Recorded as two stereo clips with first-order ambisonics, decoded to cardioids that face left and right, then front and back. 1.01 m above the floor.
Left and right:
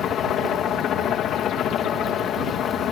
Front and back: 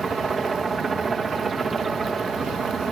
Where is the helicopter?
115° left.